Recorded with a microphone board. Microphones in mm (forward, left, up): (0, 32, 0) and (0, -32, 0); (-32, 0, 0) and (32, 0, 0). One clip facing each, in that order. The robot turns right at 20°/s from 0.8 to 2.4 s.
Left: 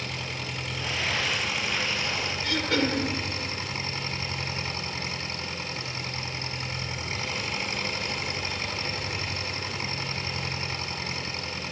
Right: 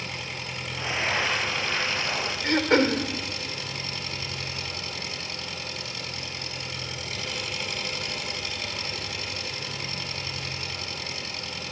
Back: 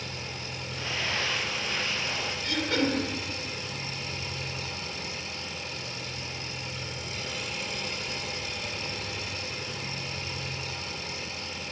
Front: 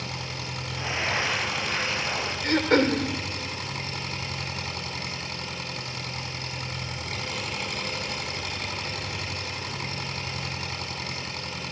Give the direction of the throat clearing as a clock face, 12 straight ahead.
1 o'clock.